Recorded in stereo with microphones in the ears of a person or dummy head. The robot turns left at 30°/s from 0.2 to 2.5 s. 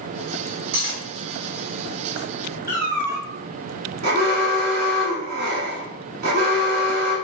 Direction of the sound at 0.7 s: 60° right (ahead or behind).